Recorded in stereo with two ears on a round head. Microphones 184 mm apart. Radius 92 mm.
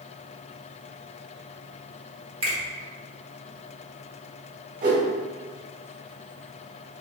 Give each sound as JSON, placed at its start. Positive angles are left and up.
{"t": 2.4, "sound": "a finger snap", "side_deg": -30, "distance_m": 1.1}
{"t": 4.8, "sound": "a whoosh", "side_deg": -40, "distance_m": 1.1}